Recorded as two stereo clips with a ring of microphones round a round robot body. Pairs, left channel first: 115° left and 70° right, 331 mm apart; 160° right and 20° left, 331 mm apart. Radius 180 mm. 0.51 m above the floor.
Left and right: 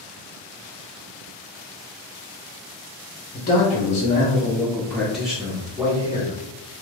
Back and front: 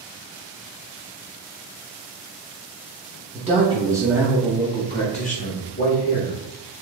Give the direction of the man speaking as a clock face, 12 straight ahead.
10 o'clock.